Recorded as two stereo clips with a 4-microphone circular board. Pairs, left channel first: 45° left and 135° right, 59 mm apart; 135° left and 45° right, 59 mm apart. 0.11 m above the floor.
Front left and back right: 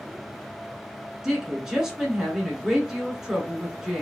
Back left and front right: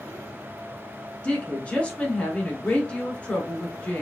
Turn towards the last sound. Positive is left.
turn(degrees=155)